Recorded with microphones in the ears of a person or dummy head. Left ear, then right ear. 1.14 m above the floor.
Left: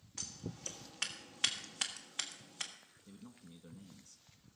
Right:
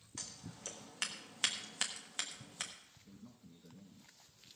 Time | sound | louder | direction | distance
0.2 | scissors | left 3 dB | 10° right (ahead or behind) | 1.4 m
3.1 | a man speaking | left 3 dB | 70° left (ahead or behind) | 1.0 m